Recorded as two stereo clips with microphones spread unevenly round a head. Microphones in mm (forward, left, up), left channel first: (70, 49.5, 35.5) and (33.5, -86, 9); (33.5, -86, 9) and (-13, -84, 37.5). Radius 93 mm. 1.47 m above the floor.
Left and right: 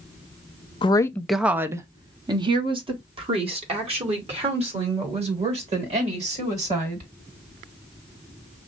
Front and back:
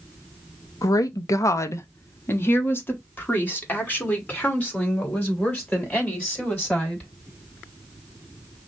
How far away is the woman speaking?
About 0.5 m.